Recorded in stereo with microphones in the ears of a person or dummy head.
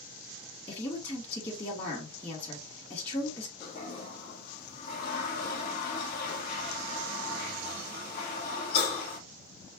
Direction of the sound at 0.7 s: 30° left (ahead or behind).